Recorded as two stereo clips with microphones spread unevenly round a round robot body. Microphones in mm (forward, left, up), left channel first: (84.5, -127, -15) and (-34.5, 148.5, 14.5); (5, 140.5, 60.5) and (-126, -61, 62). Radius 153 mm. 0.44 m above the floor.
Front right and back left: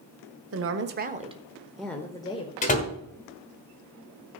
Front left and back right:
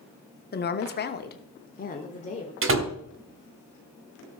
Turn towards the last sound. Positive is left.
turn(degrees=-125)